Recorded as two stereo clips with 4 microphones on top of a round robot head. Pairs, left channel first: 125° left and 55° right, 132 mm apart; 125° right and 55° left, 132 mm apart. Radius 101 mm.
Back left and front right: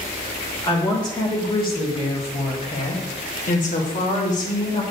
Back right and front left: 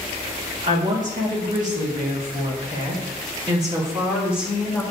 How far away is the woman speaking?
About 3.5 m.